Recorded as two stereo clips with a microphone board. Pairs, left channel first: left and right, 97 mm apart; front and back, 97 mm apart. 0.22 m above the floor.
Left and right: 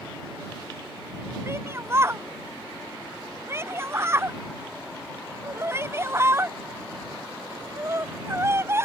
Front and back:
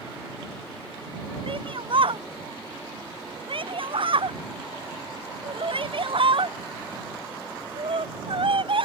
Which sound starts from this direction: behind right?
A shout, at 1.5 s.